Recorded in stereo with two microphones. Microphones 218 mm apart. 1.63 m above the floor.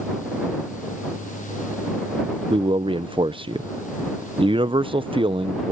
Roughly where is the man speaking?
Right.